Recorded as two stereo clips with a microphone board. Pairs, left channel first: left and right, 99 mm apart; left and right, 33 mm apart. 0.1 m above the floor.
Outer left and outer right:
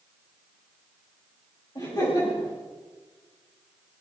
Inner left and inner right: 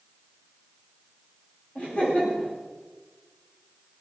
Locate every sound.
1.8 s laughter: 40° left (ahead or behind), 7 m